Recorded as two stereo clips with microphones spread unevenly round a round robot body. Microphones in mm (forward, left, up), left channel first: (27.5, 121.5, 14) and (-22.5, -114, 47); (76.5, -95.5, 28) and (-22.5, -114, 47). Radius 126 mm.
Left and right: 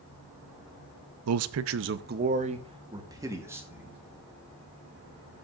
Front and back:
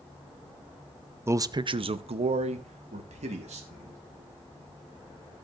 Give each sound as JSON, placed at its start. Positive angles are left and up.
{"t": 1.3, "sound": "a man speaking", "azimuth_deg": -100, "distance_m": 0.5}